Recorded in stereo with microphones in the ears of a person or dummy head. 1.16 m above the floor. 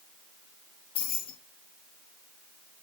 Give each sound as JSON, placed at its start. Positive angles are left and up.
{"t": 0.9, "sound": "keys jangling", "side_deg": 30, "distance_m": 1.3}